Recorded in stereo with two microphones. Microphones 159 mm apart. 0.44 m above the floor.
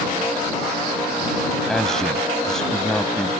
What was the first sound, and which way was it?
A man speaking, 5° left (ahead or behind).